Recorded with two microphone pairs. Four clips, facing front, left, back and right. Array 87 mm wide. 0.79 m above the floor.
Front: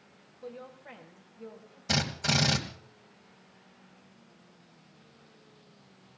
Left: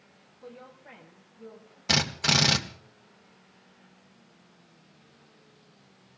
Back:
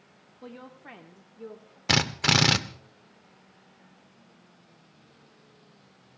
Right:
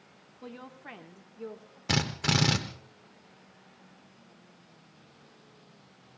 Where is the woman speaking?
135° right, 1.4 m; by 1.8 s 115° right, 2.5 m.